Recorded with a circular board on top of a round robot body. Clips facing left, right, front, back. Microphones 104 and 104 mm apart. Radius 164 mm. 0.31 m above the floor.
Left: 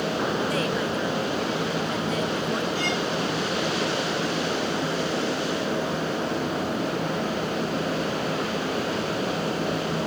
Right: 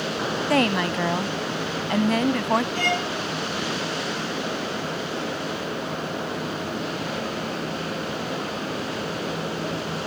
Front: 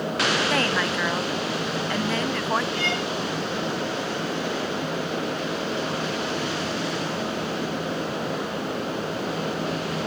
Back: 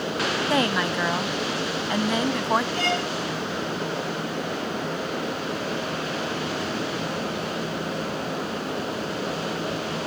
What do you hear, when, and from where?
0.5 s a woman speaking: 105° right
2.8 s a violin: 125° right